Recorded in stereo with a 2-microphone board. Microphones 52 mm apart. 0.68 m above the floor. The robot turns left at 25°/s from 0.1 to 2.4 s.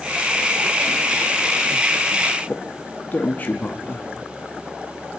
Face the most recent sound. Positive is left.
turn(degrees=35)  # may be behind; listen again after turning